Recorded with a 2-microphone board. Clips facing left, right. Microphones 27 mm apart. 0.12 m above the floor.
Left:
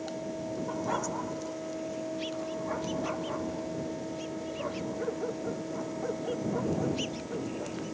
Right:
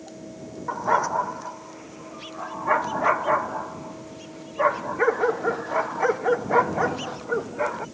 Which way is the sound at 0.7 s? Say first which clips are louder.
Right 12 dB; 40° right (ahead or behind).